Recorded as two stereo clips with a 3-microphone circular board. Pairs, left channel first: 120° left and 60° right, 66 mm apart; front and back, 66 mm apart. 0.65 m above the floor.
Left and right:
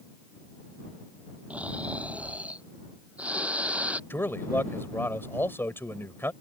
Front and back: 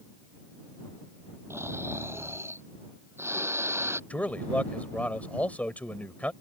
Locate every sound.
1.5 s snoring: 130° right
4.1 s a man speaking: 65° left